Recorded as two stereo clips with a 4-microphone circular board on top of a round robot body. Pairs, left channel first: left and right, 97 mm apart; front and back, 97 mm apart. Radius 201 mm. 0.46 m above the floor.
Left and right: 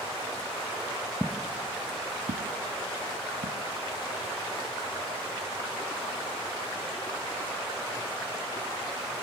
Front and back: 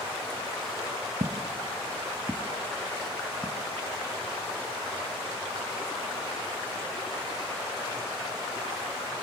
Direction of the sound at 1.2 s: 170° left.